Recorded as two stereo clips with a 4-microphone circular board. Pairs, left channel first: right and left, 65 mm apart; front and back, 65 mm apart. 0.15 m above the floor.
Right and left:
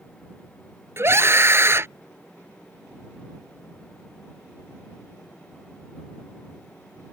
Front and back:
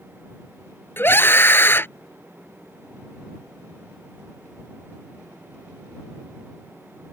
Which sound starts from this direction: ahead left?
A scream, at 1.0 s.